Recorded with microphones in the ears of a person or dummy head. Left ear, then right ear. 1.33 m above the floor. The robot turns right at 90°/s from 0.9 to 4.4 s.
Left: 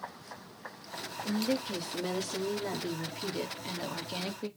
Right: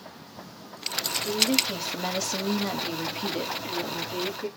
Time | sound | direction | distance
1.2 | a woman speaking | 165° left | 3 m